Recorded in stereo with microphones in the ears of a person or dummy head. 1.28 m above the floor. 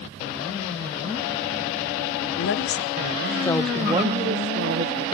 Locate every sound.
2.4 s a woman speaking: 55° left (ahead or behind), 1.1 m; by 5.0 s 65° right (ahead or behind), 1.1 m